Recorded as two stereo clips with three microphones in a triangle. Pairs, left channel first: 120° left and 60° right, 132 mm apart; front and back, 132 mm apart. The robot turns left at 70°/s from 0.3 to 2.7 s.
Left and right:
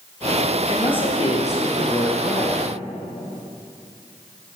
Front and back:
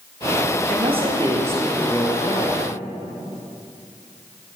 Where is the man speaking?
170° left, 2 m; by 2.6 s 35° left, 2 m.